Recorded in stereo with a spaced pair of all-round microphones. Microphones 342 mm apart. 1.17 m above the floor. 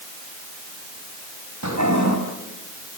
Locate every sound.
1.6 s a toilet flushing: 55° right (ahead or behind), 4.5 m